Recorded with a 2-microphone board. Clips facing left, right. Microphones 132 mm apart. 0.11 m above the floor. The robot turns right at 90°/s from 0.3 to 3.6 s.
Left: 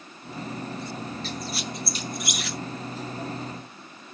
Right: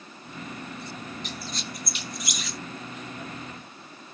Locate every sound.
1.2 s a squeak: 20° right (ahead or behind), 0.9 m; by 2.6 s 65° left (ahead or behind), 0.9 m